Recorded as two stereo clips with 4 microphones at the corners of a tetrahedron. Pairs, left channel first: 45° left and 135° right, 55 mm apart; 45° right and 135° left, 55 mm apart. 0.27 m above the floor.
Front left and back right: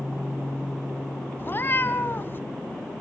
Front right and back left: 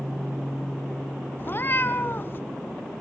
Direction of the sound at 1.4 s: 5° right.